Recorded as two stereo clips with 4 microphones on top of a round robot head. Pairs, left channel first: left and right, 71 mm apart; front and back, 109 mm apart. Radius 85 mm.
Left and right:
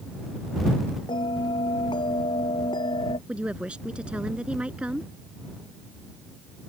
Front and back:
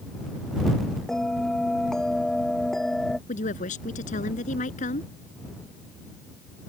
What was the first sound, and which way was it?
A bell, 85° left.